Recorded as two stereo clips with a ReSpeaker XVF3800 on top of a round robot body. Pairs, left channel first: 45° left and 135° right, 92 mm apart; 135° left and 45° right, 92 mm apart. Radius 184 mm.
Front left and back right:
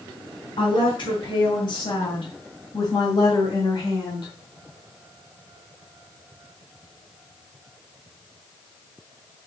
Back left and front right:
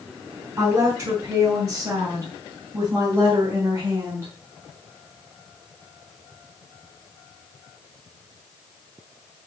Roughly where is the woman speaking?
Ahead.